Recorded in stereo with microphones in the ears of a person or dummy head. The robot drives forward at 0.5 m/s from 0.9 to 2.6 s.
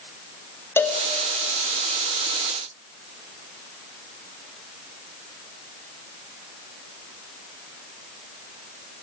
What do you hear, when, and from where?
0.8 s a cowbell: 10° left (ahead or behind), 1.2 m